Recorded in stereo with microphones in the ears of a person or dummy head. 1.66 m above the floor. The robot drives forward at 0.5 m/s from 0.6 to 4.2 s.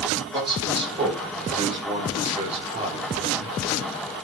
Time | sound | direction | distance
0.3 | a man speaking | 20° right (ahead or behind) | 4.5 m